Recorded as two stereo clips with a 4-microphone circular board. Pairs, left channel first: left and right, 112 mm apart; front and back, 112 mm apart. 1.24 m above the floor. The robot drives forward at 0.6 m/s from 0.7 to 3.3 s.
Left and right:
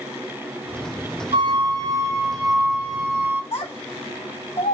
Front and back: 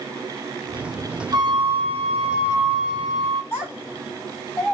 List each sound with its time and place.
1.3 s a flute: 130° right, 0.6 m; by 3.4 s 165° right, 1.6 m
3.5 s a child speaking: 85° left, 3.5 m